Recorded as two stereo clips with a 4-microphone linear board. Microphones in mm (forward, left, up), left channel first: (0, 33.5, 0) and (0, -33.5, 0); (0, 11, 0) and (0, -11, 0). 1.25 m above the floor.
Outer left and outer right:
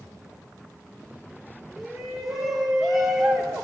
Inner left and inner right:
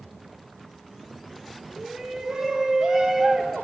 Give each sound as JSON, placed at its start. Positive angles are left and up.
{"t": 1.8, "sound": "a shout", "side_deg": 0, "distance_m": 1.6}